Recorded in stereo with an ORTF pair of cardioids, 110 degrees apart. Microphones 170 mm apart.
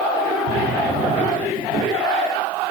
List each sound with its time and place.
0.5 s a drawer: 65° right, 6 m